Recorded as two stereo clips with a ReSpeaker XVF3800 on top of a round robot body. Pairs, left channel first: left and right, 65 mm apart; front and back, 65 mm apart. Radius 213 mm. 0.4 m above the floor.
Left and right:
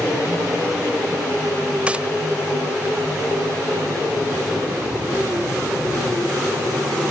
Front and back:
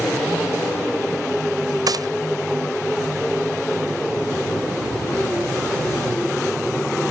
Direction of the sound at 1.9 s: 160° right.